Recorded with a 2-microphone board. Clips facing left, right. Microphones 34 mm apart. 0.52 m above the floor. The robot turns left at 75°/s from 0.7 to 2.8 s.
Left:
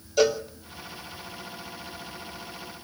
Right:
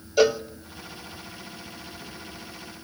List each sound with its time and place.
0.2 s a cowbell: 10° right (ahead or behind), 0.9 m